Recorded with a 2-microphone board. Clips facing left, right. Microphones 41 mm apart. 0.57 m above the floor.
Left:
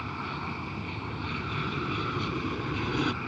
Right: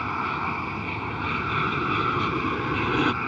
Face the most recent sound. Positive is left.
turn(degrees=-35)  # may be behind; listen again after turning